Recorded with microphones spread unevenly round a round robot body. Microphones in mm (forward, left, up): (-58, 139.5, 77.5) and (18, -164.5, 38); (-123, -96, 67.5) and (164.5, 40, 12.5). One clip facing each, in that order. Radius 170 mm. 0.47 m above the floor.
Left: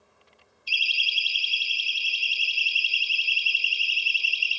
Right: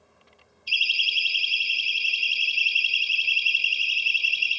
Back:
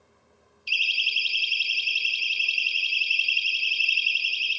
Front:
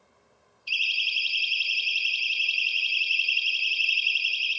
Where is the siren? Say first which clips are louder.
Even, back 2 dB; 165° left, 5.5 m; by 4.6 s 175° left, 10 m.